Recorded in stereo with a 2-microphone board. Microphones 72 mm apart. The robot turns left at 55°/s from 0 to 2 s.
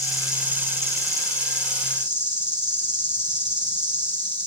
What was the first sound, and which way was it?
An insect, 5° left.